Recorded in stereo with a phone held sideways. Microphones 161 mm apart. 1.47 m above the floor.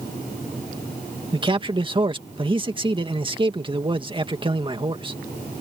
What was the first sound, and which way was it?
A man speaking, 30° right (ahead or behind).